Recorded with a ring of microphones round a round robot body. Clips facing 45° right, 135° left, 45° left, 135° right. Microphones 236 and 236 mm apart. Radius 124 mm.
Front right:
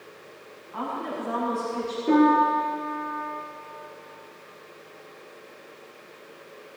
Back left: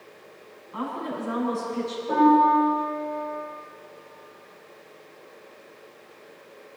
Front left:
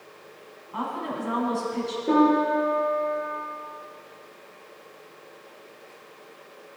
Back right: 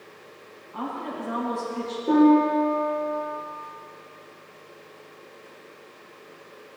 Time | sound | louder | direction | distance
0.7 | a woman speaking | back left 1 dB, front left 1 dB | 75° left | 7 m
2.1 | a piano | even, back right 4 dB | 40° right | 6.5 m